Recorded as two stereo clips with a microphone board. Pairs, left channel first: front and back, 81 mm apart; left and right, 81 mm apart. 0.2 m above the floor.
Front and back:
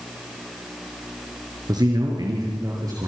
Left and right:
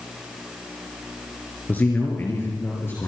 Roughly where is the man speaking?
Behind left.